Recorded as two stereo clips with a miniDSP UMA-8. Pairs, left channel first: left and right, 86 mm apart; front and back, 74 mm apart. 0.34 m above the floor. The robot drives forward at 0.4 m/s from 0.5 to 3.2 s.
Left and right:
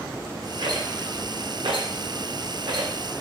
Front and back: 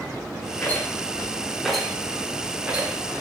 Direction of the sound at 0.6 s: 65° right.